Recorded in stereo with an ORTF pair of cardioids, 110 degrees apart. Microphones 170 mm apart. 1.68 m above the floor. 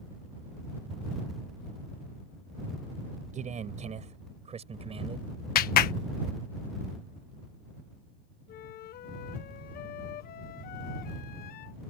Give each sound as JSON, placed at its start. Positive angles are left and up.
{"t": 3.3, "sound": "a man speaking", "azimuth_deg": -45}
{"t": 5.5, "sound": "a clap", "azimuth_deg": 60}
{"t": 8.5, "sound": "a flute", "azimuth_deg": 60}